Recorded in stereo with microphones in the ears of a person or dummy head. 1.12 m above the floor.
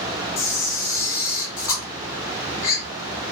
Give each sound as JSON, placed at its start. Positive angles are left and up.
{"t": 0.4, "sound": "a camera shutter", "side_deg": 15, "distance_m": 0.6}